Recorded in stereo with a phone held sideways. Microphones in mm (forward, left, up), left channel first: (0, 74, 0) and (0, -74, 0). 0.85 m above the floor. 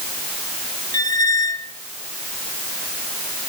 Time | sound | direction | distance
0.9 | a squeak | 25° left (ahead or behind) | 1.4 m